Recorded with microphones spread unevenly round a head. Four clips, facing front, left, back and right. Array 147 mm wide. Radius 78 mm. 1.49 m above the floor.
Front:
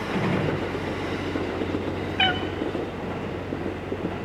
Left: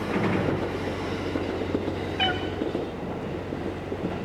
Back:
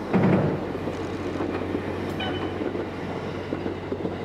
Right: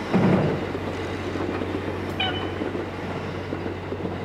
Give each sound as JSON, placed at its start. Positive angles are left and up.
{"t": 0.1, "sound": "a gunshot", "azimuth_deg": -135, "distance_m": 1.6}
{"t": 2.2, "sound": "a cat meowing", "azimuth_deg": 10, "distance_m": 1.7}